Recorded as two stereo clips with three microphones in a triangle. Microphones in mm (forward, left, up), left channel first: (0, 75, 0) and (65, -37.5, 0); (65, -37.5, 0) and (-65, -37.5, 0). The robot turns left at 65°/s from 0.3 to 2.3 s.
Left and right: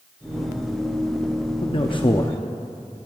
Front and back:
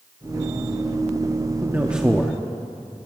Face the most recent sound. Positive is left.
turn(degrees=80)